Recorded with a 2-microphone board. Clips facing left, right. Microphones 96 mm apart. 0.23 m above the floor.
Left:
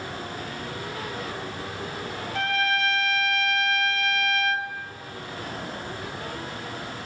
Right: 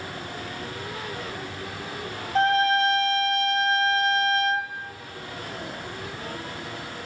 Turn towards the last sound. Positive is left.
turn(degrees=-35)  # may be behind; listen again after turning